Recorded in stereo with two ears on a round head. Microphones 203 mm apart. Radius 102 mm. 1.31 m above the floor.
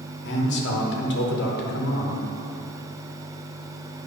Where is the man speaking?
50° left (ahead or behind), 1.1 m.